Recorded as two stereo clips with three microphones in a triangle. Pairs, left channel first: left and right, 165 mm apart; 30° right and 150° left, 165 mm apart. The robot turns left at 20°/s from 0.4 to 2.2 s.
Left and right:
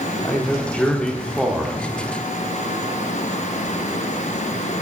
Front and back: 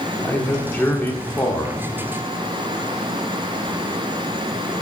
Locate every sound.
0.2 s a man speaking: 30° left, 1.2 m; by 1.8 s straight ahead, 1.2 m